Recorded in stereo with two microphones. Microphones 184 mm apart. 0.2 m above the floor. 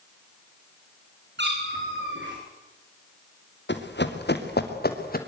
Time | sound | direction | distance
1.4 | a cat meowing | 70° right (ahead or behind) | 7 m
3.7 | running footsteps | 75° left (ahead or behind) | 3 m